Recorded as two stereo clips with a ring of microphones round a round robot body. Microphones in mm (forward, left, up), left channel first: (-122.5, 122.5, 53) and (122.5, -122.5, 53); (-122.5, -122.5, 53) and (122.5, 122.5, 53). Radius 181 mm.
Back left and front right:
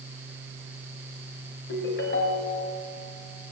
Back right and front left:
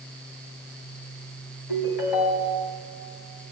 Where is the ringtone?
165° right, 3 m.